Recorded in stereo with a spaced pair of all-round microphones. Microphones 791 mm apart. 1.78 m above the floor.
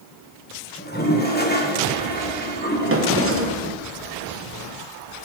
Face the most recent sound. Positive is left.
turn(degrees=-20)  # may be behind; listen again after turning